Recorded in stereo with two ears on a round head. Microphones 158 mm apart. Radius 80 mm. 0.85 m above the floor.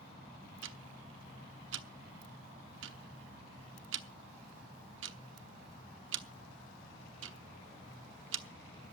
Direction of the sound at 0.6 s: 75° right (ahead or behind).